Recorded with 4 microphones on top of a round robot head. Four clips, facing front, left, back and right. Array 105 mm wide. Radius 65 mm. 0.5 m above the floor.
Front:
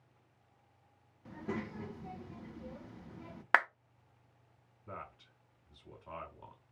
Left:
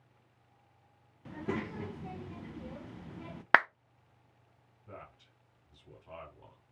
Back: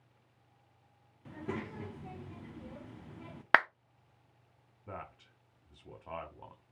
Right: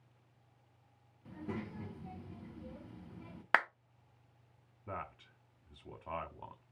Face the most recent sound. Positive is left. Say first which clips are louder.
# right 6 dB, back 2 dB
turn(degrees=-120)